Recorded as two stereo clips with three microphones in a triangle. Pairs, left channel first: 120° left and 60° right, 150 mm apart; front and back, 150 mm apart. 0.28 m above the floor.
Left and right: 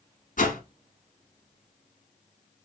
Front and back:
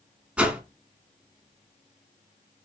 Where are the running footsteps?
I don't hear running footsteps.